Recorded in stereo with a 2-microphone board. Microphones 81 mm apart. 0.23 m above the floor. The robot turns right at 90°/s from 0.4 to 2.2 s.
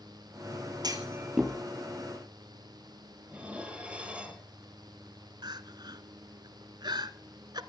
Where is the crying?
65° right (ahead or behind), 1.1 m.